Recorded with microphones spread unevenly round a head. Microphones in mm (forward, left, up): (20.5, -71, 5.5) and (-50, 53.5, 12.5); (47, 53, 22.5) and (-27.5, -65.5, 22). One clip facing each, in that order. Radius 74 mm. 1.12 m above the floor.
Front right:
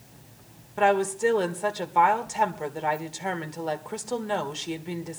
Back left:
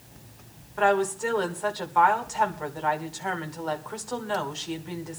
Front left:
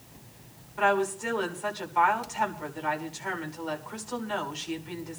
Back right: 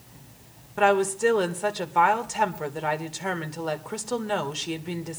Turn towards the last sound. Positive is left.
turn(degrees=-120)